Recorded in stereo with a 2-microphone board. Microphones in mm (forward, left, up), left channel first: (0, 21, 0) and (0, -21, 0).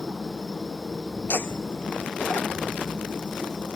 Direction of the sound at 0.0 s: 20° left (ahead or behind).